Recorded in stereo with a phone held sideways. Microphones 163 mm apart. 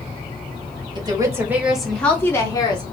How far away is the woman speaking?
About 1.2 m.